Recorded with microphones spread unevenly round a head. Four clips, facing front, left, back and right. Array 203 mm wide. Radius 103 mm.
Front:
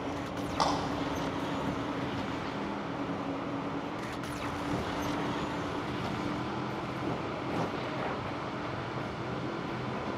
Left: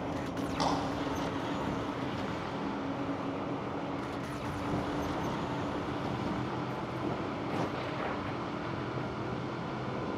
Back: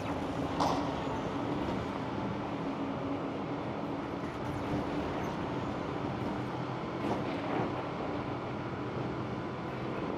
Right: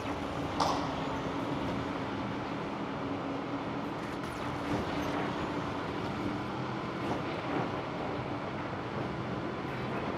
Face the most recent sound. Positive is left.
turn(degrees=0)